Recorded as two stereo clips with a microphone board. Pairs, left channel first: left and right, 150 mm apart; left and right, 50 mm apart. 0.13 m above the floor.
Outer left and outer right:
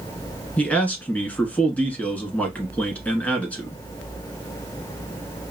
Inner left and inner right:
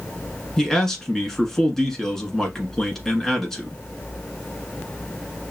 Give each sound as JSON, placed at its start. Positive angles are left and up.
{"t": 0.6, "sound": "a man speaking", "side_deg": 10, "distance_m": 1.1}